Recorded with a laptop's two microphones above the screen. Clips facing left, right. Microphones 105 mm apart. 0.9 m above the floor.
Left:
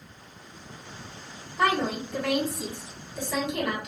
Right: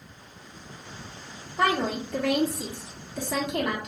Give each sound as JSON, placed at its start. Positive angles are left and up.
{"t": 1.6, "sound": "a woman speaking", "side_deg": -70, "distance_m": 1.6}